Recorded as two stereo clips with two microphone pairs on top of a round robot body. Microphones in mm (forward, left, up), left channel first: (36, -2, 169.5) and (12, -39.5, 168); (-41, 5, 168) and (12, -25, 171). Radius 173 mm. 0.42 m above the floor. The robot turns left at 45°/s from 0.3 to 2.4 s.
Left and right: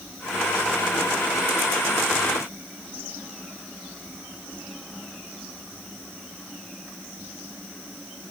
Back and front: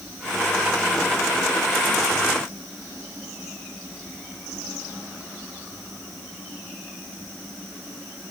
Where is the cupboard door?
No cupboard door in this recording.